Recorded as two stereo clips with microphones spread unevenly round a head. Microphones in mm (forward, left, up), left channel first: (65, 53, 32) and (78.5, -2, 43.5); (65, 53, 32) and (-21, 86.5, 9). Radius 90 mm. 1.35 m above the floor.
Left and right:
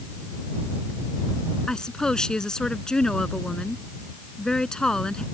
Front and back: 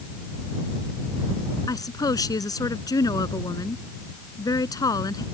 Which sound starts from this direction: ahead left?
A woman speaking, at 1.7 s.